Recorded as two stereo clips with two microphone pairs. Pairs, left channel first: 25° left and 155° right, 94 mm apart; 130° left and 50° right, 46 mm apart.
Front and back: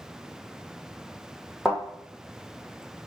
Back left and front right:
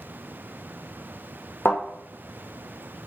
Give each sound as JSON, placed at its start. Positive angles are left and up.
{"t": 1.6, "sound": "a thud", "azimuth_deg": 120, "distance_m": 2.0}